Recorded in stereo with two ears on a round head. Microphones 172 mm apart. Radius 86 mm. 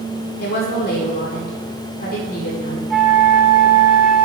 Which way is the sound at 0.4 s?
50° left (ahead or behind).